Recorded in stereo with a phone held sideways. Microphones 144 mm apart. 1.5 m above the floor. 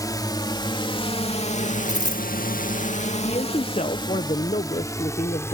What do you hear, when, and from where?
0.0 s a drone: 25° left (ahead or behind); by 5.5 s 20° left (ahead or behind)
1.9 s a dropped coin: 55° left (ahead or behind)
3.2 s a man speaking: 45° left (ahead or behind)